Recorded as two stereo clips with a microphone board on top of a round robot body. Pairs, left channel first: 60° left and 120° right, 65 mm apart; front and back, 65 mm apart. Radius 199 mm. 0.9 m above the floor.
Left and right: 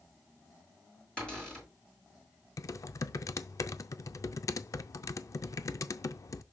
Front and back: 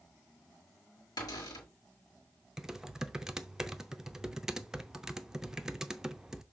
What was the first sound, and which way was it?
A cupboard door, 15° right.